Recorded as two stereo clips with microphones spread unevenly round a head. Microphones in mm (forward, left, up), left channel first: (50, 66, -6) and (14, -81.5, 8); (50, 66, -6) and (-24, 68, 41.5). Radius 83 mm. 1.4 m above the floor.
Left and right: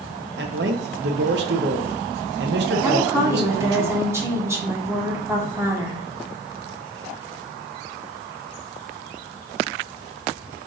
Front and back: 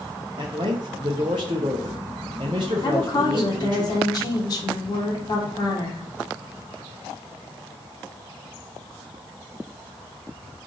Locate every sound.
0.4 s a man speaking: 135° right, 0.8 m
2.8 s a woman speaking: 30° right, 1.4 m